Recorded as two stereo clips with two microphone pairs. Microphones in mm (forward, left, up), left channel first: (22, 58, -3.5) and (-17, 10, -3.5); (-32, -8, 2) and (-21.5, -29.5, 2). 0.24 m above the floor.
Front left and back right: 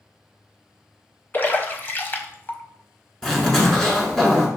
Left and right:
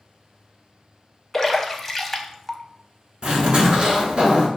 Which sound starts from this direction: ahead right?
A zipper, at 3.2 s.